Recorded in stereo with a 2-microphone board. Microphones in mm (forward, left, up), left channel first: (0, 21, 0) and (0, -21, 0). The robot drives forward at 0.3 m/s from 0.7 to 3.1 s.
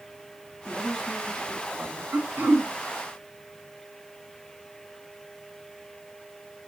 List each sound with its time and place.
0.7 s a woman speaking: 10° right (ahead or behind), 1.8 m
2.1 s throat clearing: 60° right (ahead or behind), 2.5 m; by 2.7 s 65° right (ahead or behind), 2.5 m